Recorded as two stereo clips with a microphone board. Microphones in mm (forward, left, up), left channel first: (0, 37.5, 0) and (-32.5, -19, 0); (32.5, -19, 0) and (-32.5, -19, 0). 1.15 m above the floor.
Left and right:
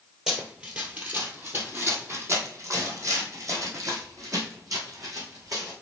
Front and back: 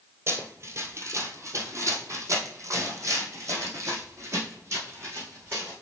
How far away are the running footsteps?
About 1.5 m.